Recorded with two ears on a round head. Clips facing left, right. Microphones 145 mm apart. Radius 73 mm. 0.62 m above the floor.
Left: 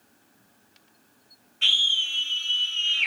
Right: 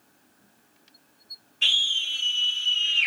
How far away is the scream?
About 1.1 m.